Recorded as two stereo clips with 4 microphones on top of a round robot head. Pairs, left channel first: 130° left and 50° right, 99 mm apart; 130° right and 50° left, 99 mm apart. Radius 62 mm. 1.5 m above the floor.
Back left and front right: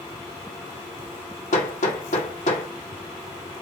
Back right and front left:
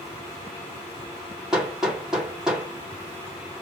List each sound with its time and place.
1.5 s hammering: 135° left, 2 m